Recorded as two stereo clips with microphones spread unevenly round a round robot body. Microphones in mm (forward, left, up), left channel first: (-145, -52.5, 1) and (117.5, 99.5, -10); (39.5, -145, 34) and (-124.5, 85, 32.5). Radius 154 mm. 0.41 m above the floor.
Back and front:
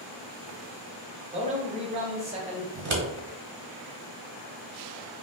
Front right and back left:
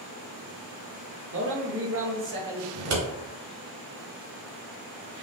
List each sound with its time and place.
1.3 s a man speaking: 90° left, 1.3 m
2.8 s scissors: 85° left, 1.2 m